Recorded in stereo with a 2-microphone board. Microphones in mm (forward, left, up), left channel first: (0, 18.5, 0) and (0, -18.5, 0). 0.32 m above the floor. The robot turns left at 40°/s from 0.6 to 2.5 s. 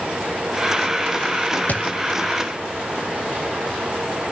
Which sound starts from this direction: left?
A thud, at 1.7 s.